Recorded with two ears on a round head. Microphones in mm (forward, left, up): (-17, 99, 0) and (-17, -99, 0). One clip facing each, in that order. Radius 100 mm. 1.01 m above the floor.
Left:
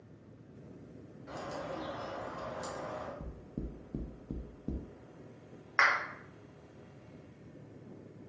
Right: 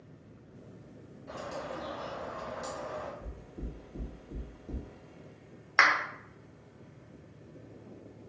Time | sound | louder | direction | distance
1.3 | a bird | right 1 dB | 70° left (ahead or behind) | 1.3 m
3.2 | knocking | left 2 dB | 70° left (ahead or behind) | 0.6 m
5.8 | a clap | right 3 dB | 45° right (ahead or behind) | 0.6 m